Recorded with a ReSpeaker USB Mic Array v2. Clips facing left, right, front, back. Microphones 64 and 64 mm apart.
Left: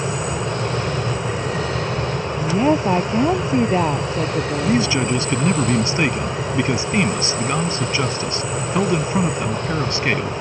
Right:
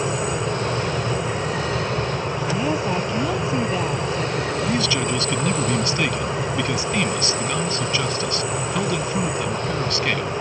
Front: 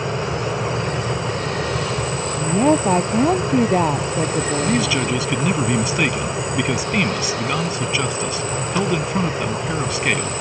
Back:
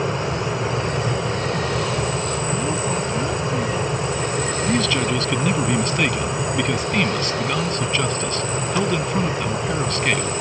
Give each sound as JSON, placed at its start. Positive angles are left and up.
{"t": 2.4, "sound": "a woman speaking", "azimuth_deg": 35}
{"t": 4.6, "sound": "a man speaking", "azimuth_deg": 75}